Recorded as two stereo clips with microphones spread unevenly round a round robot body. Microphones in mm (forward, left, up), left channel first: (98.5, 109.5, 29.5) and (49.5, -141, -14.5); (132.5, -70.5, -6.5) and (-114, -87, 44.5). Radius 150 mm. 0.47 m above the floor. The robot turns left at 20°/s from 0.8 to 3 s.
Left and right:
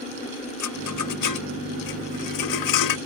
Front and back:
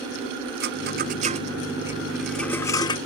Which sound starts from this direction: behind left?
A rattle, at 0.6 s.